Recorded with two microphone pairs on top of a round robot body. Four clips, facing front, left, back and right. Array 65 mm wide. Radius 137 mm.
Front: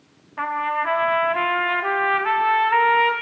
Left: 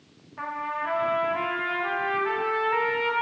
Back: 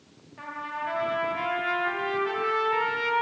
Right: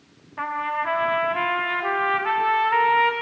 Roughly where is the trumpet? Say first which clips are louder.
Right 5 dB, front 11 dB; ahead right.